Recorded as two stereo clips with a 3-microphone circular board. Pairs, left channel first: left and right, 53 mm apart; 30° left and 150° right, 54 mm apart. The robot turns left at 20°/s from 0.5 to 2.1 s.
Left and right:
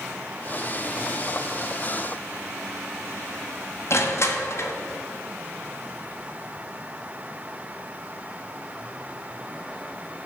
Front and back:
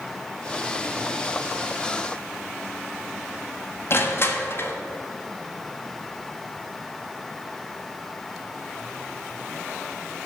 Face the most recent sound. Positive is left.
turn(degrees=65)